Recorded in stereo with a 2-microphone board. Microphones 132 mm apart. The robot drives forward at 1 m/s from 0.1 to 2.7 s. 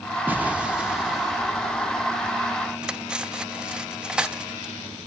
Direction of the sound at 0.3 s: 15° right (ahead or behind).